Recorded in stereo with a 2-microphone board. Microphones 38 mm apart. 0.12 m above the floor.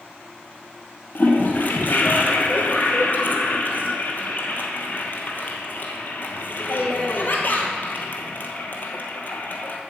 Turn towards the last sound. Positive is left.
turn(degrees=50)  # may be behind; listen again after turning